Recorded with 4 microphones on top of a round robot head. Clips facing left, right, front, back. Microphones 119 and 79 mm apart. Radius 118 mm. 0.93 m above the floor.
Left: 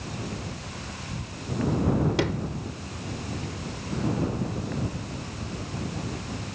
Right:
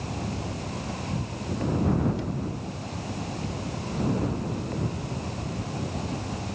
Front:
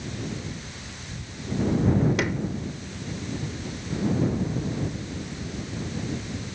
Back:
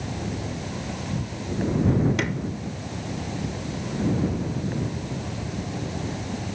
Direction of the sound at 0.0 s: 150° right.